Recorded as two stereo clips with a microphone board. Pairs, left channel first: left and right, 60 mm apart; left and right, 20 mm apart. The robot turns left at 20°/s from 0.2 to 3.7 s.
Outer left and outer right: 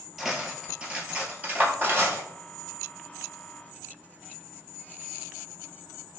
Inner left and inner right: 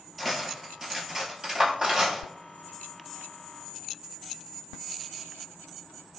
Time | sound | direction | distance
0.2 | cutlery clinking | 5° right (ahead or behind) | 1.2 m